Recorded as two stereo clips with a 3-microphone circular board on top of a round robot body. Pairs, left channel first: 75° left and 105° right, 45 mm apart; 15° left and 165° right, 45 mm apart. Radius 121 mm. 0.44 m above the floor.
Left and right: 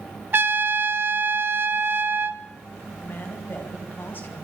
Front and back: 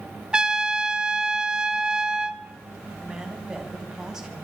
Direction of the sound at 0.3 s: 100° right.